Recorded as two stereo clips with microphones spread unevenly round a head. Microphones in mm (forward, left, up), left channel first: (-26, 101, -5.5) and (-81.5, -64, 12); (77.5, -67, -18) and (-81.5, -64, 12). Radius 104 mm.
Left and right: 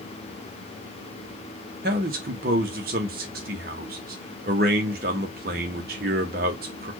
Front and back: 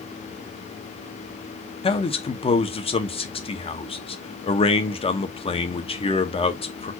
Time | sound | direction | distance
1.8 | a man speaking | 60° right | 1.0 m